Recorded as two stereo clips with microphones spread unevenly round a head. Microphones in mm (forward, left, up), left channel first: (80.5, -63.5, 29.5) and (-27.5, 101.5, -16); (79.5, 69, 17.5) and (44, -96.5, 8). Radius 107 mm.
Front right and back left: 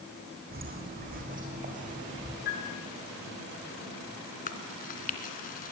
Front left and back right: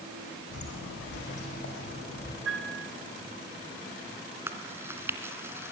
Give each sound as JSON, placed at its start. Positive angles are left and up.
{"t": 0.5, "sound": "footsteps", "azimuth_deg": 75, "distance_m": 5.0}
{"t": 2.5, "sound": "a piano", "azimuth_deg": -100, "distance_m": 9.5}
{"t": 4.5, "sound": "chewing", "azimuth_deg": -25, "distance_m": 2.5}